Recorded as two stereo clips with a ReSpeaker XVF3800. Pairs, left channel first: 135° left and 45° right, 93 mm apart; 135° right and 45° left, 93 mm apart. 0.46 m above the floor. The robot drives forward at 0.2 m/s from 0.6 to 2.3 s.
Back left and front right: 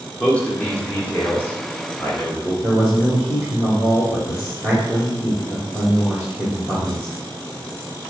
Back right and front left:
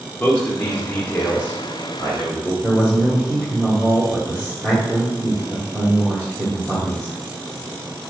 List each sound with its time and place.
0.2 s a man speaking: 175° right, 0.9 m; by 2.5 s straight behind, 1.0 m
2.6 s a man speaking: 165° left, 1.2 m